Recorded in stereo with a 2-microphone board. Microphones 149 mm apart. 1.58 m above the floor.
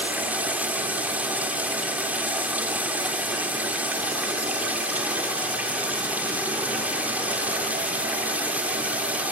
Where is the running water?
10° right (ahead or behind), 3 m.